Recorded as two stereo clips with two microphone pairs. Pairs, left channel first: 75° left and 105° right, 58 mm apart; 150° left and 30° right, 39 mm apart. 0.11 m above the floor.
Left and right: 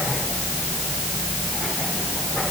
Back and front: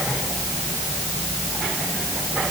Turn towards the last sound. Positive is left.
No sound to turn to.